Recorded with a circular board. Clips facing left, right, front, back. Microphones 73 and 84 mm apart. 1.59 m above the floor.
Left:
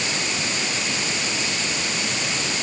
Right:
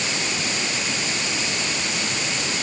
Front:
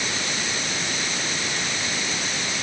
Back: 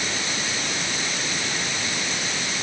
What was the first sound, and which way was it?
Only background noise.